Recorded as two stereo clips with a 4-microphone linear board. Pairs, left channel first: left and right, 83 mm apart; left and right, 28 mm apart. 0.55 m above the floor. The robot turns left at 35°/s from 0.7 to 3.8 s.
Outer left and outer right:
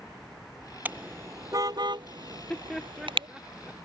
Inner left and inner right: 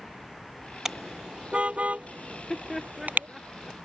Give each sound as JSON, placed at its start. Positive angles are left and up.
{"t": 0.8, "sound": "a car horn", "side_deg": -20}
{"t": 2.3, "sound": "laughter", "side_deg": 15}